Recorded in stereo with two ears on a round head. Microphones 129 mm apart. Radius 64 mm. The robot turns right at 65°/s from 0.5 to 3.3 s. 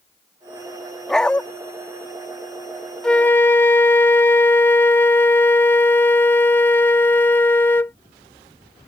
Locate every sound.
1.1 s a dog barking: 5° left (ahead or behind); by 1.4 s 10° left (ahead or behind)
3.0 s a flute: 5° left (ahead or behind); by 8.0 s 15° left (ahead or behind)